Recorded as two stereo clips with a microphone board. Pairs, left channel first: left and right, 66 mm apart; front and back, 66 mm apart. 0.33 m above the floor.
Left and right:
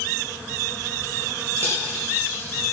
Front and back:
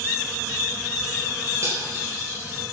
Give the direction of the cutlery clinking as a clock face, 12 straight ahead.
5 o'clock.